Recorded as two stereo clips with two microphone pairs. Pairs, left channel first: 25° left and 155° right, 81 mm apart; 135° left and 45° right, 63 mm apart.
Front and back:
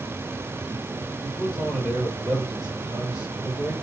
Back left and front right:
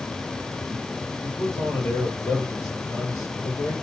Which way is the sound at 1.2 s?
120° left.